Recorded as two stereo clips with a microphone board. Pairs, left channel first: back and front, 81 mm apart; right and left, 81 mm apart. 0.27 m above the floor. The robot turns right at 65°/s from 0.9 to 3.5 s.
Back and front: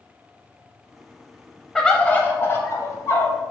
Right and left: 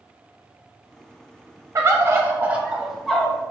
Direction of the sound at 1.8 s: 100° left.